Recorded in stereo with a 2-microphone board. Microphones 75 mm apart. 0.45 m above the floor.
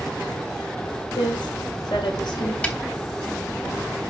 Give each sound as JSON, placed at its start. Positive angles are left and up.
{"t": 1.1, "sound": "a woman speaking", "side_deg": 80, "distance_m": 5.5}
{"t": 2.6, "sound": "a snare drum", "side_deg": 15, "distance_m": 1.4}